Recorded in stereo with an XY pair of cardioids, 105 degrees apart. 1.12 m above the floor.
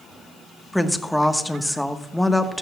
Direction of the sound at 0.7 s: Straight ahead.